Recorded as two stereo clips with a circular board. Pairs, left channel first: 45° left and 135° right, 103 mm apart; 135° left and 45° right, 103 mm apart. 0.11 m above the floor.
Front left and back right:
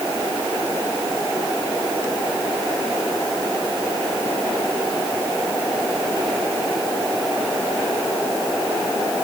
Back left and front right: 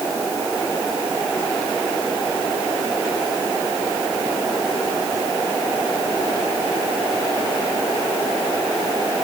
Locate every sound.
Only background noise.